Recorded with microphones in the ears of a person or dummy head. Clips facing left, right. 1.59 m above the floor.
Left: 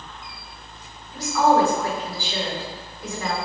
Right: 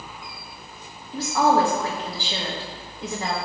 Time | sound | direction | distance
1.1 | a woman speaking | 25° right (ahead or behind) | 1.5 m